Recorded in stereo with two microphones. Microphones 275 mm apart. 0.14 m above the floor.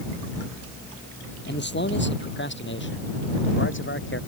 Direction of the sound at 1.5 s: 40° left (ahead or behind).